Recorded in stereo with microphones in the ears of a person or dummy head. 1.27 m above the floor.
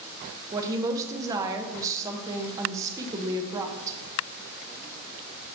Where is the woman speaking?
20° right (ahead or behind), 0.9 m.